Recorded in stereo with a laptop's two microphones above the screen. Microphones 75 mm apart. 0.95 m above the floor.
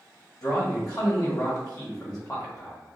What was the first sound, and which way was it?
A man speaking, 50° left (ahead or behind).